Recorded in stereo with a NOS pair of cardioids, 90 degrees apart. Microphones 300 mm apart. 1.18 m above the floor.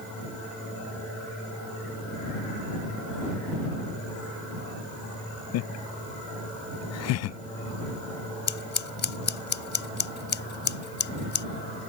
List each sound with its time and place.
5.5 s laughter: 65° left
8.5 s scissors: 40° left